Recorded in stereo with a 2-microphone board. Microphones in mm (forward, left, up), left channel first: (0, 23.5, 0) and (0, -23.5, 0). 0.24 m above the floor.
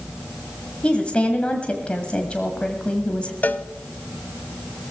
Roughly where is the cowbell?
Left.